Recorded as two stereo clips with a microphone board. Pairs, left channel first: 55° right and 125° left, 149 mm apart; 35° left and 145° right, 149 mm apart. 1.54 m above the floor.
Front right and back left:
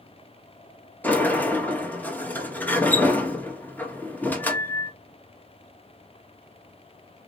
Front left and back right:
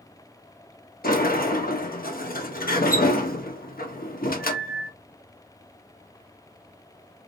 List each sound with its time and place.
1.0 s a sliding door: 25° left, 1.0 m